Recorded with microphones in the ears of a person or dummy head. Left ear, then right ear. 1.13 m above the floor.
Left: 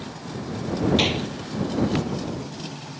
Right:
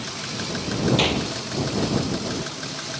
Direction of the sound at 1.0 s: 10° right (ahead or behind).